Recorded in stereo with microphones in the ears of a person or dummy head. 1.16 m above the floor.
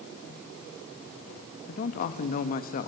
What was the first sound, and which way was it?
A man speaking, 45° left (ahead or behind).